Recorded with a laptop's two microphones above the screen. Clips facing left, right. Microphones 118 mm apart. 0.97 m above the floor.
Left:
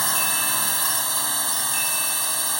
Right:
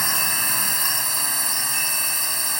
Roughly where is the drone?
Centre.